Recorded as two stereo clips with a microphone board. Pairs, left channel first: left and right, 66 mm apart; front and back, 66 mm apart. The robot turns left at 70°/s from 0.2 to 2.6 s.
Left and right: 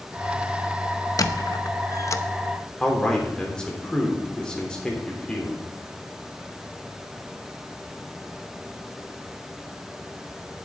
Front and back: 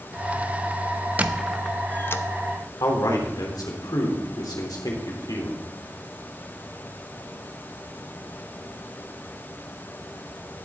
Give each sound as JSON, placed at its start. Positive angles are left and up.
{"t": 1.2, "sound": "a squeak", "azimuth_deg": 115, "distance_m": 0.7}
{"t": 2.8, "sound": "a man speaking", "azimuth_deg": 15, "distance_m": 3.0}